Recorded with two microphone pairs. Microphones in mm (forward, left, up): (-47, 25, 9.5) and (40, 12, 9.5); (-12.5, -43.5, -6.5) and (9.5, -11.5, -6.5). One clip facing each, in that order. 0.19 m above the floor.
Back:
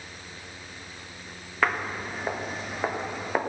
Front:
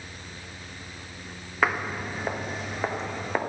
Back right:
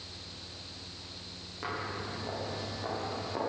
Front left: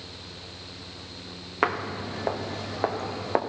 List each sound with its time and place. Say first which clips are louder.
1.6 s footsteps: front 1 dB, front left 10 dB; 75° left, 1.4 m; by 3.4 s 85° left, 2.5 m